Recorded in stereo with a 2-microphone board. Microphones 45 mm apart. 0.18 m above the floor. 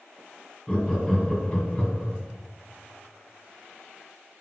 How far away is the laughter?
About 1.8 m.